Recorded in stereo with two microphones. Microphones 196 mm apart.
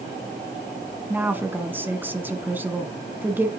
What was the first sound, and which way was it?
A woman speaking, 10° right (ahead or behind).